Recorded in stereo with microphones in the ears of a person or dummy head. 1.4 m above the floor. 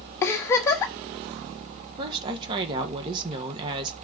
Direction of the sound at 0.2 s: 15° left (ahead or behind).